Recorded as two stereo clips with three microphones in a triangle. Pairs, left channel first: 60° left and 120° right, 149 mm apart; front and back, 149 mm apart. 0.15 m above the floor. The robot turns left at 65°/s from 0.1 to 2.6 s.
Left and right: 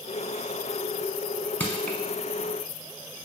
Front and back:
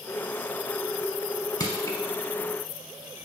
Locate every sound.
1.6 s crushing: straight ahead, 0.7 m; by 2.0 s 25° right, 0.7 m